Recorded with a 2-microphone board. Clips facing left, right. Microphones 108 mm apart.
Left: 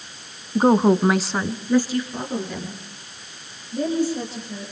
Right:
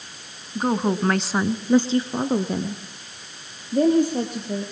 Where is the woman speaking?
35° left (ahead or behind), 1.5 m; by 4.6 s 50° right (ahead or behind), 5.5 m.